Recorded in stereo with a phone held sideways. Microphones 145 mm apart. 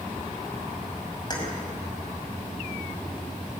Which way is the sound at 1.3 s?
30° left (ahead or behind).